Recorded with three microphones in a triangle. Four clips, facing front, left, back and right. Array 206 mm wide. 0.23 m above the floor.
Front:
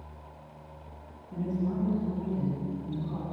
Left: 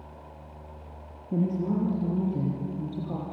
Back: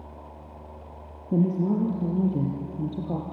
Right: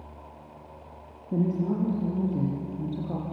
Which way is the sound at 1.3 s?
Straight behind.